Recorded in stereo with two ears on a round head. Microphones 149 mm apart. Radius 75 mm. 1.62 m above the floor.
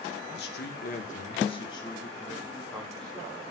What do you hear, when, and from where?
0.4 s a man speaking: 75° left (ahead or behind), 2.5 m; by 3.5 s centre (ahead or behind), 4.5 m